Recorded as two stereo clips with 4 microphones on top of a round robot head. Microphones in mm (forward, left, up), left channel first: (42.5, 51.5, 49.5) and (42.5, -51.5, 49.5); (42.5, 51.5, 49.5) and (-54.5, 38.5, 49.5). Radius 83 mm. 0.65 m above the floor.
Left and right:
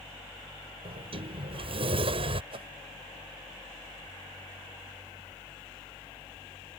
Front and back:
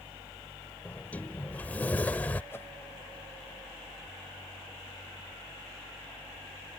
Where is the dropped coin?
I don't hear a dropped coin.